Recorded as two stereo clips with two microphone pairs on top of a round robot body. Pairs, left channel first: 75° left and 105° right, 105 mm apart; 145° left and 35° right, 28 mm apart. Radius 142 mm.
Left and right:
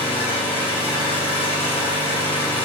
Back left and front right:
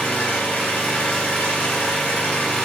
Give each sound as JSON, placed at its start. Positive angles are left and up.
{"t": 0.0, "sound": "an engine running", "azimuth_deg": 115, "distance_m": 4.5}